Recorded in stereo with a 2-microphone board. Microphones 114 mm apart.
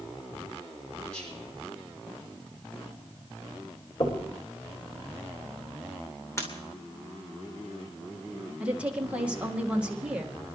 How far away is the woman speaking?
About 1.9 m.